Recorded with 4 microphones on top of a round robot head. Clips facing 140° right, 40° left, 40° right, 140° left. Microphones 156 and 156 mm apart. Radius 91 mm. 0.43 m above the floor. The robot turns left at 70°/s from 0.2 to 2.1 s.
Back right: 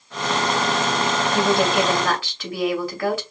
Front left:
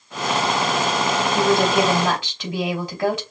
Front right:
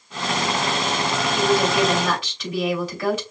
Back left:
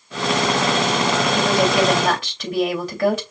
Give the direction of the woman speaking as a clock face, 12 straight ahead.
7 o'clock.